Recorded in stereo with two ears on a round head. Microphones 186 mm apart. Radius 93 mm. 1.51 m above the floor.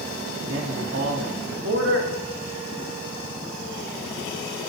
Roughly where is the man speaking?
Right.